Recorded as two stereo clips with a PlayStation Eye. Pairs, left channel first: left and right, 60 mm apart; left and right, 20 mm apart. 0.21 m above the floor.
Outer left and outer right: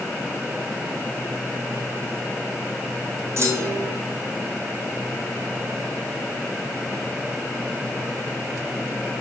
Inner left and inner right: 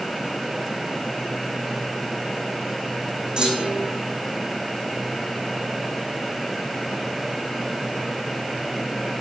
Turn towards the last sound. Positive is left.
turn(degrees=-50)  # may be behind; listen again after turning